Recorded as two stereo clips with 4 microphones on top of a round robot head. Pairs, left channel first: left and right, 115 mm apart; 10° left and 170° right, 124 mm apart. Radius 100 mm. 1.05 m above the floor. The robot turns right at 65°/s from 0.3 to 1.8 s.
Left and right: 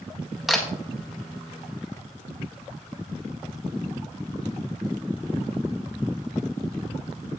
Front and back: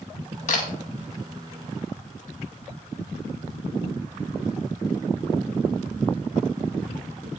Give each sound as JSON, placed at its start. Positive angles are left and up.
{"t": 0.5, "sound": "a camera shutter", "azimuth_deg": -5, "distance_m": 1.9}